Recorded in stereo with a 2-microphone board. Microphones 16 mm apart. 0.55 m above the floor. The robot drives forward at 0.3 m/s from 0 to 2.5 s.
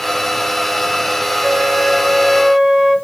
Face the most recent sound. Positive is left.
turn(degrees=-45)  # may be behind; listen again after turning